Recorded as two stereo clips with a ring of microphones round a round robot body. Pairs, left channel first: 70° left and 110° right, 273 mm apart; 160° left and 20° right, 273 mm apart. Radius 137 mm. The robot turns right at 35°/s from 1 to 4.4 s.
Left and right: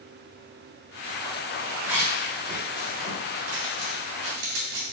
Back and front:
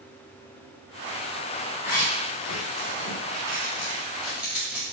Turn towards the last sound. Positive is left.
turn(degrees=-110)